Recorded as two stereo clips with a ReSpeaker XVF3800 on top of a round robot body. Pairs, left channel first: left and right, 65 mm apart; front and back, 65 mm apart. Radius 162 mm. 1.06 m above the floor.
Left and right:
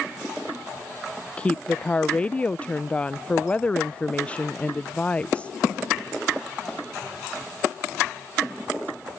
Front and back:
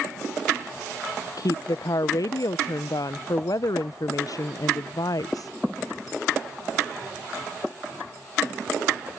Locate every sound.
1.4 s a woman speaking: 20° left